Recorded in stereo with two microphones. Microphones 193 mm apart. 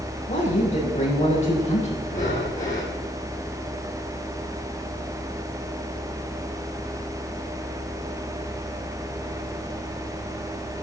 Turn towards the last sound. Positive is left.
turn(degrees=40)  # may be behind; listen again after turning